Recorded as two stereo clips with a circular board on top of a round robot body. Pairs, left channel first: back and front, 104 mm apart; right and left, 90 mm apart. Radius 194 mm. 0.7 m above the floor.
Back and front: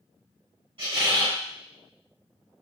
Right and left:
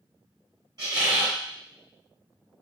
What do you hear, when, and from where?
0.8 s a squeak: 45° left, 1.4 m